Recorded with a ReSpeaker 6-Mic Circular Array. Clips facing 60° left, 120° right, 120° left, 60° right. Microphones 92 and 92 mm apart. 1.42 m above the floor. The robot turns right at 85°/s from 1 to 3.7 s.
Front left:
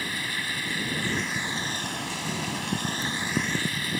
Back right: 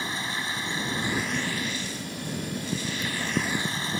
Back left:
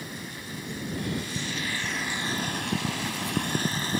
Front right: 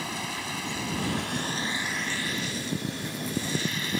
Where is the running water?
50° right; by 4.0 s 175° left.